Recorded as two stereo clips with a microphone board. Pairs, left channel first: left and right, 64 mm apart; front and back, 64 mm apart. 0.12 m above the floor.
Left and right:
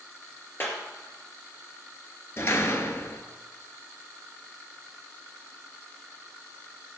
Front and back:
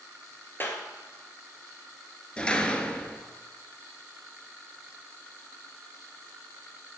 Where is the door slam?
70° left, 1.1 m.